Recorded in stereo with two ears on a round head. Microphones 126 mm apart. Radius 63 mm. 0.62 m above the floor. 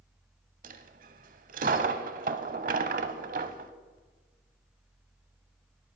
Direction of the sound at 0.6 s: 60° right (ahead or behind).